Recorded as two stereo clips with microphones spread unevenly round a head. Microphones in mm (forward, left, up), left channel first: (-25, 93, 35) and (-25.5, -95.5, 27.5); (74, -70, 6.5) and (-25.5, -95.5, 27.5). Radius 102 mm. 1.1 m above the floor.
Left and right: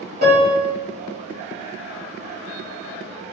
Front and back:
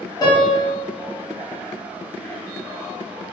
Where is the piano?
40° right, 1.7 m.